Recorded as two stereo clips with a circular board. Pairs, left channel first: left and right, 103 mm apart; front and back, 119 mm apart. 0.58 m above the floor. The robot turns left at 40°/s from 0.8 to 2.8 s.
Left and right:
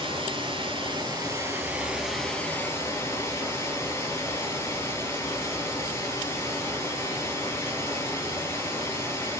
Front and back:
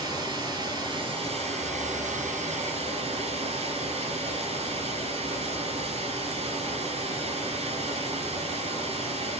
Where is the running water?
125° right, 4 m; by 9.4 s 155° left, 4 m.